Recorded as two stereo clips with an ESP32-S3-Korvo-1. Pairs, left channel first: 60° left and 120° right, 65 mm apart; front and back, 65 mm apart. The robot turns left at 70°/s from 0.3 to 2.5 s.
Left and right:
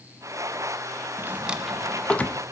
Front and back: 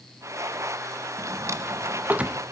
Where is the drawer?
170° right, 0.6 m; by 2.4 s 105° left, 0.6 m.